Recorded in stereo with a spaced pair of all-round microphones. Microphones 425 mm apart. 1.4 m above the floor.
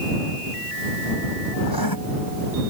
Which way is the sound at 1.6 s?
60° left (ahead or behind).